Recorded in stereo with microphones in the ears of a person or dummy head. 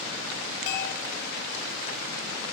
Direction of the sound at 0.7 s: 50° left (ahead or behind).